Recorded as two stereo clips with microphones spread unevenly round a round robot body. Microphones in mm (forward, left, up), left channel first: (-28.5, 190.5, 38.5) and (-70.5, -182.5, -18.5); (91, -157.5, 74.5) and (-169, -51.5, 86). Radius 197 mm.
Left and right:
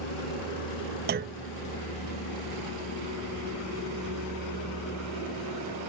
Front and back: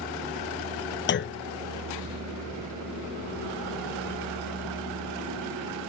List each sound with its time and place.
0.0 s a vehicle: 85° left; by 5.9 s 135° left
1.1 s a clunk: 55° right